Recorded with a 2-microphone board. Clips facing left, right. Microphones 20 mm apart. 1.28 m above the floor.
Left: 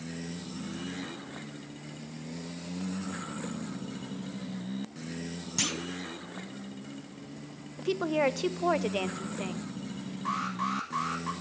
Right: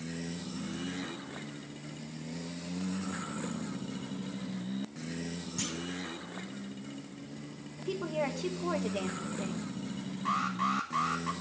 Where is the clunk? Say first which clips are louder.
Left 6 dB; 50° left (ahead or behind), 0.7 m.